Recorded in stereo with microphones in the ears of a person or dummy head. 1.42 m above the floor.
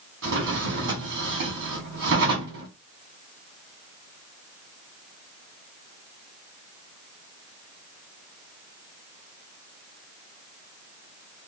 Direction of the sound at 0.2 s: 55° right (ahead or behind).